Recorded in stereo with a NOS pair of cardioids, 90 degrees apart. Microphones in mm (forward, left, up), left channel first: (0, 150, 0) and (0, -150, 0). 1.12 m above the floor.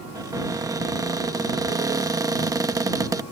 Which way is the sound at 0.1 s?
10° right.